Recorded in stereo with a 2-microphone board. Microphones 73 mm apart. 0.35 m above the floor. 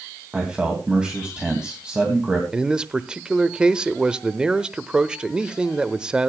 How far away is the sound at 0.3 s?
About 2.5 m.